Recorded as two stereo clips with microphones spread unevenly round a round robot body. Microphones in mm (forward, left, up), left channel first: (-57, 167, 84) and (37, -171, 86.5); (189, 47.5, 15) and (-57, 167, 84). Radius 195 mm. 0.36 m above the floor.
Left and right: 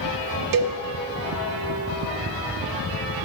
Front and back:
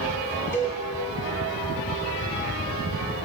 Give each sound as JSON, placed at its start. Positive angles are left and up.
{"t": 0.5, "sound": "a cowbell", "azimuth_deg": -100, "distance_m": 0.7}